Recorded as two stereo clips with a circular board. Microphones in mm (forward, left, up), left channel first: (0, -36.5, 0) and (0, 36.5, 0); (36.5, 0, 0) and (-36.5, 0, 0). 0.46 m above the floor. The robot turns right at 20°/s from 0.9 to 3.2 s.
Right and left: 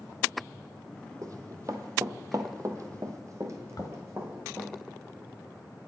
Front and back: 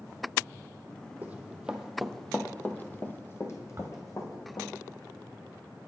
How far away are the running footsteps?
About 0.8 m.